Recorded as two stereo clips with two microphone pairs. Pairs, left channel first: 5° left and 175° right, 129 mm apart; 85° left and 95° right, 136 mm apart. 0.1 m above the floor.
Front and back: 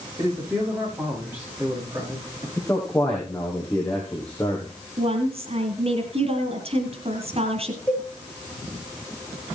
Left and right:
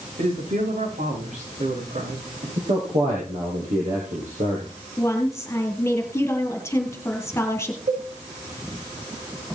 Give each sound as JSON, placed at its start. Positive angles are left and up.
{"t": 0.2, "sound": "a man speaking", "azimuth_deg": -105, "distance_m": 10.0}
{"t": 2.6, "sound": "a man speaking", "azimuth_deg": -80, "distance_m": 4.0}
{"t": 5.0, "sound": "a woman speaking", "azimuth_deg": 155, "distance_m": 2.5}
{"t": 7.9, "sound": "a cowbell", "azimuth_deg": -80, "distance_m": 6.5}